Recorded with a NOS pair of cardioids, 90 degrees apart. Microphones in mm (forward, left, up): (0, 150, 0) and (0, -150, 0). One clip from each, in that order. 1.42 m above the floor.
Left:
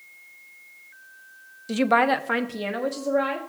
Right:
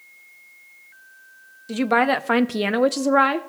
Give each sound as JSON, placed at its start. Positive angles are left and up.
{"t": 1.7, "sound": "a woman speaking", "azimuth_deg": 10, "distance_m": 0.7}